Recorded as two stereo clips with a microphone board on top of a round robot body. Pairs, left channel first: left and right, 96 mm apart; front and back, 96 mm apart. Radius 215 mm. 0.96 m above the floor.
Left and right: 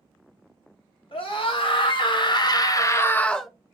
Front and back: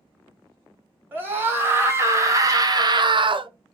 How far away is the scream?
About 2.0 m.